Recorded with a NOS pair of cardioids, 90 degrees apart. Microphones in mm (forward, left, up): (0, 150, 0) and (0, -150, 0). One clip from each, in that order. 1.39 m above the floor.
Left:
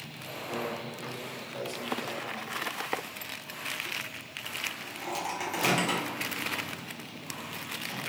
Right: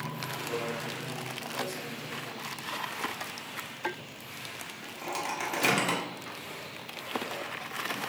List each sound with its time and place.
0.5 s a microwave: 15° right, 0.9 m